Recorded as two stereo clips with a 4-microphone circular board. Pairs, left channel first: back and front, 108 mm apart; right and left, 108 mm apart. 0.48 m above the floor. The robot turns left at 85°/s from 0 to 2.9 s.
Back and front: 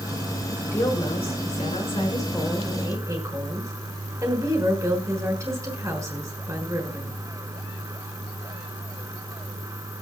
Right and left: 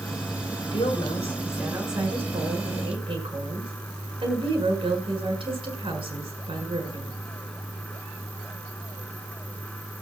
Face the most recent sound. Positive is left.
turn(degrees=60)